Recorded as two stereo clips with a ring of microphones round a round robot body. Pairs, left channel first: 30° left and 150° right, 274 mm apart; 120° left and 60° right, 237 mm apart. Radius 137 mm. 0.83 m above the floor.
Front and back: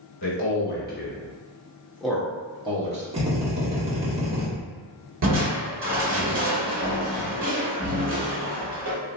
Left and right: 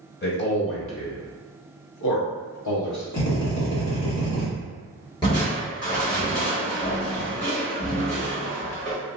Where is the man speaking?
75° left, 1.4 m; by 3.0 s 145° left, 1.3 m.